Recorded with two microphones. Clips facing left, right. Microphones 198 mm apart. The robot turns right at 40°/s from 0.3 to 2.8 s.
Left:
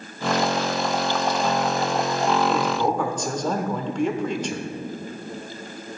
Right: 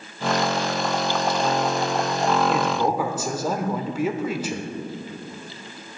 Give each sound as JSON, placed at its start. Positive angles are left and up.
{"t": 2.5, "sound": "a man speaking", "side_deg": -10, "distance_m": 0.8}